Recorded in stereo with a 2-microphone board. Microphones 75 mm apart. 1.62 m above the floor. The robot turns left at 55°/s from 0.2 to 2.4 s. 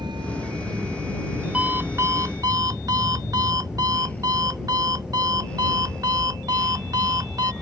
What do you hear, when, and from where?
0.0 s a vehicle: 85° right; by 7.6 s 10° left (ahead or behind)
1.5 s an alarm clock: 20° right; by 7.5 s 65° right